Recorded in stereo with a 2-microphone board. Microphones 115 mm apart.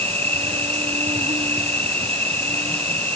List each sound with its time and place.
0.0 s an insect: 60° right (ahead or behind)